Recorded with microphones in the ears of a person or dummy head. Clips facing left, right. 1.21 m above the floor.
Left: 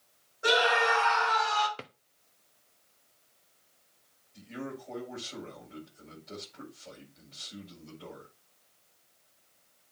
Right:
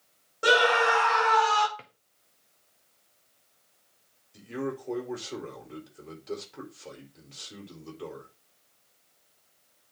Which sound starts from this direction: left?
A drawer, at 1.8 s.